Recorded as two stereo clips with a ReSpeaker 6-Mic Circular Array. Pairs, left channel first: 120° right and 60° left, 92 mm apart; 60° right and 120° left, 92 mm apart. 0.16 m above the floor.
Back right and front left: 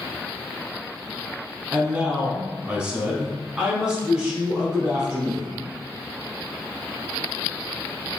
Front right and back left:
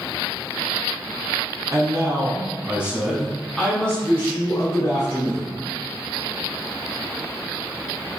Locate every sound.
1.7 s a man speaking: 130° left, 1.9 m; by 5.6 s 25° right, 2.5 m